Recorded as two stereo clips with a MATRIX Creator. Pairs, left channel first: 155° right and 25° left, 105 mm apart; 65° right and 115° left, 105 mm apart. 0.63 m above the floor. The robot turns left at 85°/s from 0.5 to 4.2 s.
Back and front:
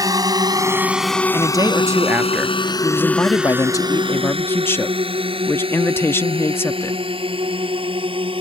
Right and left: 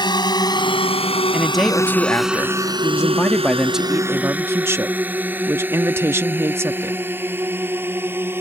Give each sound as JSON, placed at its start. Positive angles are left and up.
{"t": 0.0, "sound": "a drone", "azimuth_deg": -25}
{"t": 1.3, "sound": "a man speaking", "azimuth_deg": 40}